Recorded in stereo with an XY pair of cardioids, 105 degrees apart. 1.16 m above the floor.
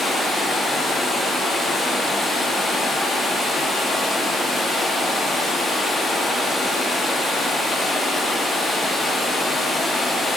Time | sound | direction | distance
0.0 | running water | 35° left | 1.5 m